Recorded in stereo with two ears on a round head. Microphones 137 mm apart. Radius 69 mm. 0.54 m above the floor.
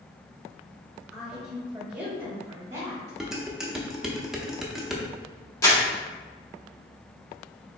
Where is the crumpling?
20° left (ahead or behind), 1.1 m.